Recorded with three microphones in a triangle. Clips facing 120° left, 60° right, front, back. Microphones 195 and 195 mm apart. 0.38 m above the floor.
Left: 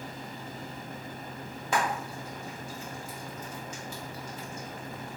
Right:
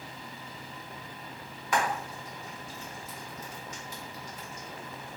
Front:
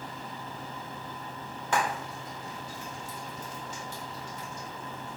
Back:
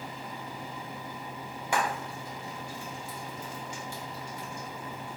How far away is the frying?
About 1.1 m.